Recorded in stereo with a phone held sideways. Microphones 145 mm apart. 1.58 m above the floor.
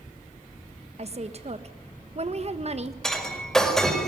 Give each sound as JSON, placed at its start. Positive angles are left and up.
{"t": 1.0, "sound": "a woman speaking", "side_deg": -45, "distance_m": 1.3}
{"t": 3.0, "sound": "breaking glass", "side_deg": 5, "distance_m": 4.5}